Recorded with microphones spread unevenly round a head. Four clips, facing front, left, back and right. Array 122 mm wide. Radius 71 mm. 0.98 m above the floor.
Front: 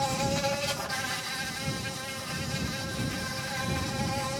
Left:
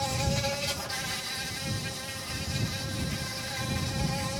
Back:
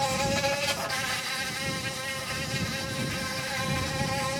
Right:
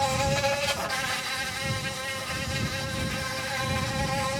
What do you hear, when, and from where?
0.0 s an insect: 130° right